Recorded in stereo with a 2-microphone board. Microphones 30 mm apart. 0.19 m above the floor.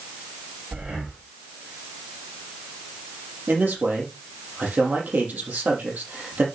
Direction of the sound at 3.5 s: 70° right (ahead or behind).